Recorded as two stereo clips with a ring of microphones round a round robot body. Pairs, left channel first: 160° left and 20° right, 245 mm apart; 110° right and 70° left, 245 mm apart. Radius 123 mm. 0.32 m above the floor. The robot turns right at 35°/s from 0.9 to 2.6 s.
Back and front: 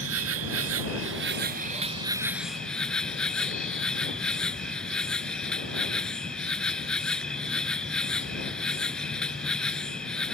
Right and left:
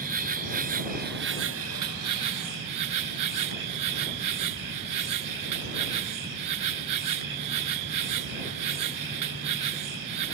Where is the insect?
10° left; by 10.4 s 70° left.